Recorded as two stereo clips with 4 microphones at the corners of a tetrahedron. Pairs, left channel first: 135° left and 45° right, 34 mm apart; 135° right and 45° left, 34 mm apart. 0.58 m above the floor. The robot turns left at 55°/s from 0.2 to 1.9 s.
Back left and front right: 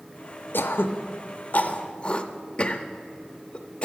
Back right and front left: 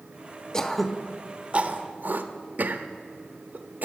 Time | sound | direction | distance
0.5 | throat clearing | 150° left | 0.5 m